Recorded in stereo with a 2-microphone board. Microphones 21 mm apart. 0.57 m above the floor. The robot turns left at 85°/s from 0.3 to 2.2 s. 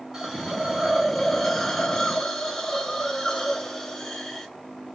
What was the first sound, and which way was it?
A hiss, 25° right (ahead or behind).